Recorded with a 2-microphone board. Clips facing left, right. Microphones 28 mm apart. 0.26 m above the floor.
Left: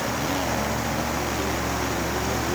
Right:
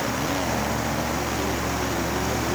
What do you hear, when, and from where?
Only background noise.